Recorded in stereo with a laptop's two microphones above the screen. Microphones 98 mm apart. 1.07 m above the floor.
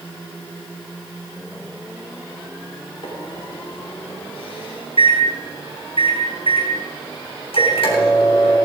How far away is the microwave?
About 3.5 m.